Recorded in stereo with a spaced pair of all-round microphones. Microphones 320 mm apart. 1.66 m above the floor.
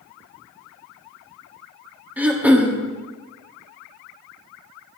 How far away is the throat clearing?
About 1.5 m.